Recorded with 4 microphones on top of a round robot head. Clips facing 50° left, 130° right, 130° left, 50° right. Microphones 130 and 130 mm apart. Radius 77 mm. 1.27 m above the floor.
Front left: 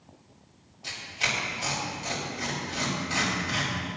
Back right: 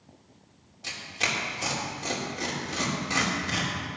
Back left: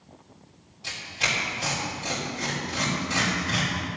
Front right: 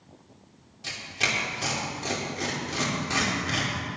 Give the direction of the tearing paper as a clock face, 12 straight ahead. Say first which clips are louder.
Back right 1 dB, even; 3 o'clock.